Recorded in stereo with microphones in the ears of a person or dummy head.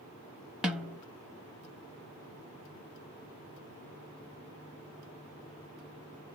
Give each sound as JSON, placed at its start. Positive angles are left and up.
{"t": 0.6, "sound": "a snare drum", "side_deg": -10, "distance_m": 0.5}